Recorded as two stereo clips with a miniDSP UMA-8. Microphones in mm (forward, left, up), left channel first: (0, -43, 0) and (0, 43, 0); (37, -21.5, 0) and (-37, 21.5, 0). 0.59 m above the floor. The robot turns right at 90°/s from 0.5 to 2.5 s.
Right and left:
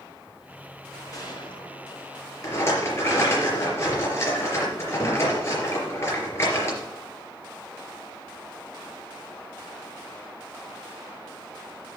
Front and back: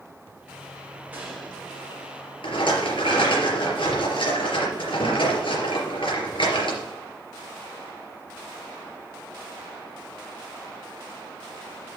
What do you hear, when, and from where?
1.1 s a gunshot: 140° right, 6 m; by 2.3 s 30° right, 6 m
2.4 s a rattle: 35° right, 4 m; by 6.8 s 30° right, 4 m